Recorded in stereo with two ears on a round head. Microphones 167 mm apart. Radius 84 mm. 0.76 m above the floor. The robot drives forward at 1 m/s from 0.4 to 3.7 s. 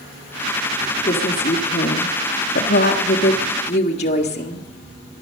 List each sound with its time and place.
1.0 s a woman speaking: 35° left (ahead or behind), 2 m; by 4.7 s 40° left (ahead or behind), 1.8 m